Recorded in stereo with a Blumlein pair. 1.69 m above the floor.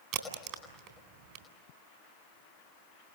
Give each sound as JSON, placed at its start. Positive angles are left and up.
{"t": 0.1, "sound": "a crack", "azimuth_deg": -40, "distance_m": 4.0}